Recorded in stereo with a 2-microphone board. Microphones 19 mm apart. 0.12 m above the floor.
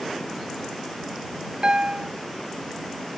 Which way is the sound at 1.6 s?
55° right (ahead or behind).